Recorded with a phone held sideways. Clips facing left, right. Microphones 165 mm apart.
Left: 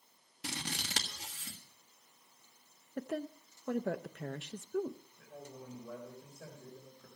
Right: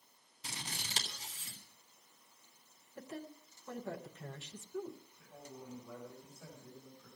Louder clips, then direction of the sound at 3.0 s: Left 8 dB; 70° left (ahead or behind).